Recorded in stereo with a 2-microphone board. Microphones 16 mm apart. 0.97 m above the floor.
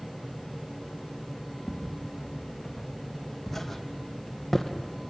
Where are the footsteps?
10° left (ahead or behind), 4.5 m; by 4.7 s 15° left (ahead or behind), 1.8 m.